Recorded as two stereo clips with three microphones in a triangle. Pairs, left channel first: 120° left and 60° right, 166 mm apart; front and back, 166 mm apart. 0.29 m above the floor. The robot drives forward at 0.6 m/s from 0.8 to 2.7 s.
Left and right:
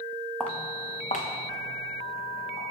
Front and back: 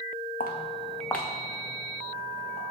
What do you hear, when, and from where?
0.4 s footsteps: 35° left, 1.0 m; by 2.6 s 125° left, 3 m